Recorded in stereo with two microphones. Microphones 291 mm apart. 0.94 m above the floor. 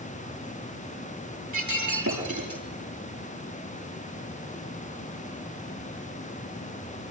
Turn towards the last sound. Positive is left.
turn(degrees=-80)